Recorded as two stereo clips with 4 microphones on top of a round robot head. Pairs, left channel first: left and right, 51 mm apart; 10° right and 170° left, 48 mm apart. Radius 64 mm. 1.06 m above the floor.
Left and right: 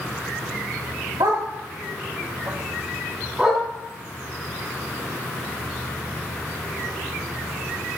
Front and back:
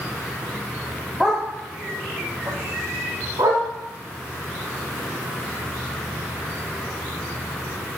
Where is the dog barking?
105° right, 1.5 m; by 3.6 s 175° right, 2 m.